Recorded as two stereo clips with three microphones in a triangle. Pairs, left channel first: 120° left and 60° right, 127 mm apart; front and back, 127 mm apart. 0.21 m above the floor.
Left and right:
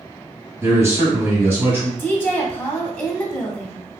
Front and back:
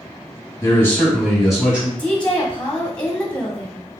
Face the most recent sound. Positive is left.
turn(degrees=65)